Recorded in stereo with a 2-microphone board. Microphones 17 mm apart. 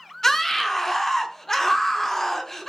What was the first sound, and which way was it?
A scream, 15° left (ahead or behind).